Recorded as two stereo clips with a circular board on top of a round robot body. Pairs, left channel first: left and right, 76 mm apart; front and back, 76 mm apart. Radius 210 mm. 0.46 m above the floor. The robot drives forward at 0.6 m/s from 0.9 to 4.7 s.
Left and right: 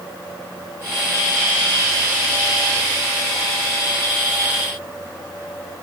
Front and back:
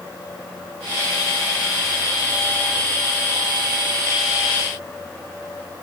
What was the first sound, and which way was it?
Only background noise.